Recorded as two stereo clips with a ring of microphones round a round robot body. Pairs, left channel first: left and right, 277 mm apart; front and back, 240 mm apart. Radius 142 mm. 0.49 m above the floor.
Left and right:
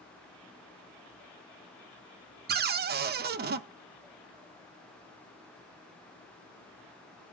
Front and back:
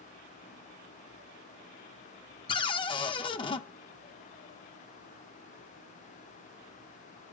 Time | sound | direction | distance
2.5 | a cupboard door | 60° right | 0.5 m